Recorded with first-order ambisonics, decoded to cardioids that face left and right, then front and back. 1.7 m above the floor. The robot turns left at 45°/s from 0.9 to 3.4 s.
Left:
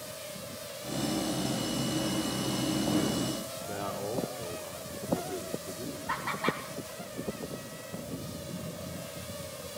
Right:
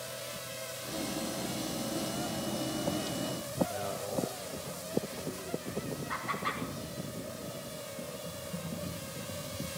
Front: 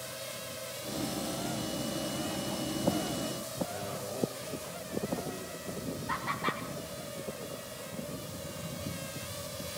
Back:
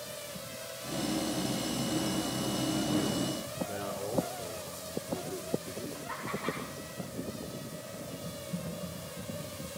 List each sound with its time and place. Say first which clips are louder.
3.7 s a man speaking: left 1 dB, back 2 dB; 120° left, 4.5 m
6.1 s laughter: left 4 dB, front 4 dB; 75° left, 7.5 m
8.2 s typing on a keyboard: even, back 1 dB; 170° left, 9 m